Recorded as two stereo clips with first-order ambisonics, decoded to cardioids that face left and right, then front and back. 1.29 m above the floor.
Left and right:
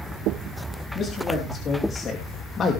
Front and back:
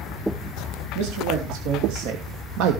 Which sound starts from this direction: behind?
A man speaking, at 0.9 s.